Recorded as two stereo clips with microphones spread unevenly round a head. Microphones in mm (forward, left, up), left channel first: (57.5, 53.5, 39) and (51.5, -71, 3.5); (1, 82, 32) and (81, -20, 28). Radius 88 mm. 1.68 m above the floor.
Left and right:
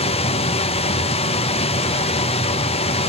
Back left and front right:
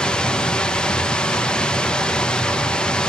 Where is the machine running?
45° left, 0.8 m.